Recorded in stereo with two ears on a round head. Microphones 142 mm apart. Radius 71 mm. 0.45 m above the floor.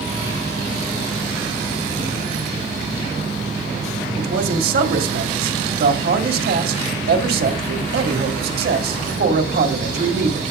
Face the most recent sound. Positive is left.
turn(degrees=-70)  # may be behind; listen again after turning